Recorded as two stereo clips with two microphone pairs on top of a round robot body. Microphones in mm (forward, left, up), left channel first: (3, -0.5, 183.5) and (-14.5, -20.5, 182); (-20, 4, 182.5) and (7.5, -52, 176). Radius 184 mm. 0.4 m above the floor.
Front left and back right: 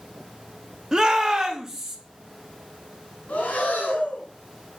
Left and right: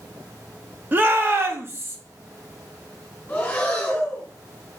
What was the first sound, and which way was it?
A shout, 80° right.